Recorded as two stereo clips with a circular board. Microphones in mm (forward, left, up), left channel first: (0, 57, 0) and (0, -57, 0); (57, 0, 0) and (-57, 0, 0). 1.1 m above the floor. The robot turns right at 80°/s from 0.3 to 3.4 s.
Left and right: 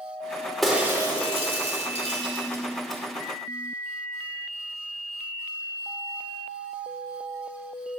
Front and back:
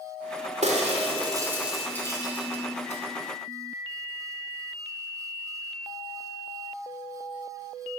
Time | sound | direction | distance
0.6 | breaking glass | straight behind | 2 m